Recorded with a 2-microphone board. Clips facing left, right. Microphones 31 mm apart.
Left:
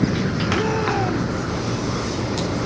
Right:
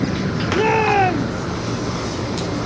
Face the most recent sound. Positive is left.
turn(degrees=-55)  # may be behind; listen again after turning